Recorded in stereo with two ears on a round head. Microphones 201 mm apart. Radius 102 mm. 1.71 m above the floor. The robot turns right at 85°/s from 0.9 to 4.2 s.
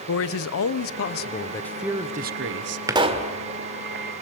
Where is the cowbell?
I don't hear a cowbell.